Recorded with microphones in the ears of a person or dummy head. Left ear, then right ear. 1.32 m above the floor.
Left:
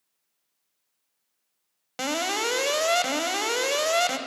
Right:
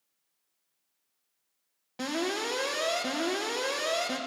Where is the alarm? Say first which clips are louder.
Left 5 dB; 60° left (ahead or behind), 1.2 m.